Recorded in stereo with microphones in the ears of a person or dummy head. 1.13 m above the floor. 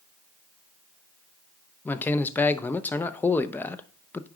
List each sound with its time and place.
1.9 s a man speaking: 15° left (ahead or behind), 0.5 m